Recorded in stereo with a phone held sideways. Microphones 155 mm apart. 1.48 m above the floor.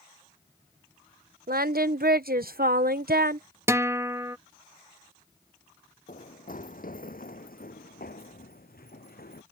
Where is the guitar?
20° right (ahead or behind).